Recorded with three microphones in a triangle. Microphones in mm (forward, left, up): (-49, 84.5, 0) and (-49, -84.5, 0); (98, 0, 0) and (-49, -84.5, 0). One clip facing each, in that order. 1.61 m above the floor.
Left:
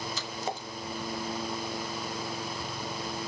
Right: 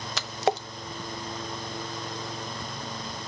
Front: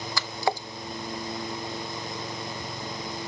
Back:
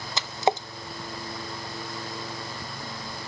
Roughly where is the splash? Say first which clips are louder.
Right 8 dB, back 4 dB; right.